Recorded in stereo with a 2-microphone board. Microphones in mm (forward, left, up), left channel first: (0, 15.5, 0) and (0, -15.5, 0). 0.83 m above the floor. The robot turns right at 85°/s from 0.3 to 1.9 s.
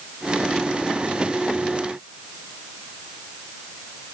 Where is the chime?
I don't hear a chime.